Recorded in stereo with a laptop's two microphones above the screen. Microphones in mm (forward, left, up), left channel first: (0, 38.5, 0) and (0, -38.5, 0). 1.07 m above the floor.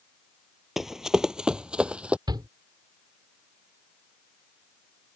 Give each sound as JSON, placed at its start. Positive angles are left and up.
{"t": 0.8, "sound": "running footsteps", "side_deg": -5}
{"t": 2.3, "sound": "a shout", "side_deg": -70}